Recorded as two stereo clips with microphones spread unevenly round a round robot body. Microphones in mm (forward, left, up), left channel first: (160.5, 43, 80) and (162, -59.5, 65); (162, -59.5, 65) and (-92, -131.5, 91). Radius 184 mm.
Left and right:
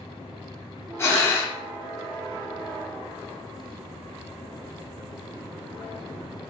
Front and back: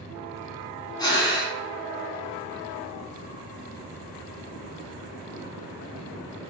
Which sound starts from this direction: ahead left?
Breathing, at 1.0 s.